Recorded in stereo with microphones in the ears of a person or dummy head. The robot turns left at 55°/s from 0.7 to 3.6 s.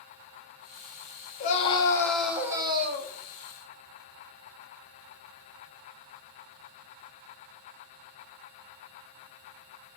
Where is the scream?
50° left, 1.1 m; by 3.1 s 45° right, 1.1 m.